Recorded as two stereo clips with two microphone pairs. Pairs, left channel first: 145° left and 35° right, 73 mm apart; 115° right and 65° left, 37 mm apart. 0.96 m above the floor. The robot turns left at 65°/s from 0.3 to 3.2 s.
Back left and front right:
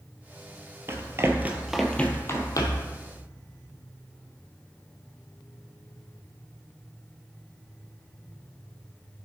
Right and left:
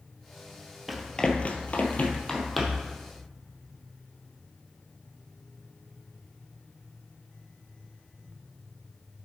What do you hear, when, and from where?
0.9 s running footsteps: 15° right, 1.1 m; by 2.9 s 130° left, 1.8 m